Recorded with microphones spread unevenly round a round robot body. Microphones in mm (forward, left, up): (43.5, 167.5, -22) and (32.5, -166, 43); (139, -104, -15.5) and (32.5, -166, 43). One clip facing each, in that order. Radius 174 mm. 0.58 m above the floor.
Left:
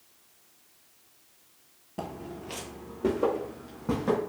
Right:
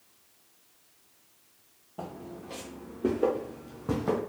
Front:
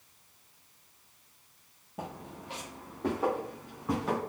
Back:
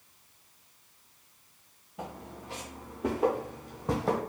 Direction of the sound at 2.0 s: 90° left.